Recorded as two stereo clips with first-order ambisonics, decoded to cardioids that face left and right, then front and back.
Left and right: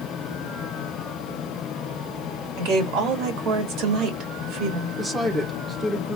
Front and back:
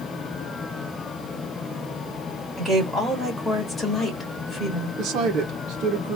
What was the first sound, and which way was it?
A woman speaking, 105° right.